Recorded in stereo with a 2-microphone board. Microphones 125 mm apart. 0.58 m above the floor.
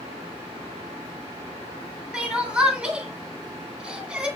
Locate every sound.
2.1 s crying: 10° right (ahead or behind), 3 m